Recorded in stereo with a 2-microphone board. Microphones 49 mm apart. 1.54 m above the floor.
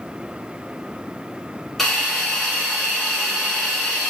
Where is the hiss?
5° left (ahead or behind), 4 m.